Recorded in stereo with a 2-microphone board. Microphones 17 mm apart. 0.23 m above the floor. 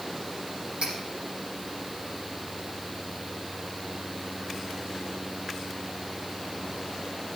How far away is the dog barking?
No dog barking in this recording.